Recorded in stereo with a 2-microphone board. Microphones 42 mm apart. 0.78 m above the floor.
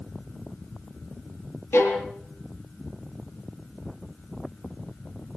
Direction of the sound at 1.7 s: 60° left (ahead or behind).